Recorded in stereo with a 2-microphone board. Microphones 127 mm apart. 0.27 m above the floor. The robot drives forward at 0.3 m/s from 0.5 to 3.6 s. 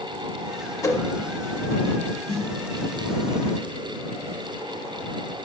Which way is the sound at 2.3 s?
45° left (ahead or behind).